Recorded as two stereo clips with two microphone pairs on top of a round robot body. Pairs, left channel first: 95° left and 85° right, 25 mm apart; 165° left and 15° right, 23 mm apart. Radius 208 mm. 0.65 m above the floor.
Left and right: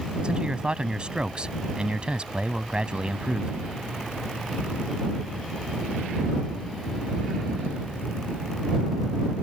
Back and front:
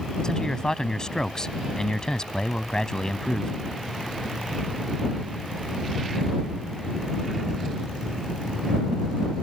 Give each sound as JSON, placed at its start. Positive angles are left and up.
{"t": 0.2, "sound": "a man speaking", "azimuth_deg": -140}